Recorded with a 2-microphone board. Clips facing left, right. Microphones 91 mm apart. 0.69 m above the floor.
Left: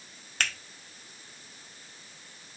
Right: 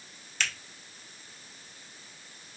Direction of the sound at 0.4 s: 55° left (ahead or behind).